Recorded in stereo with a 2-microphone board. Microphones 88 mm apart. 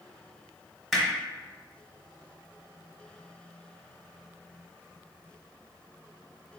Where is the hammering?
Centre (ahead or behind), 1.0 m.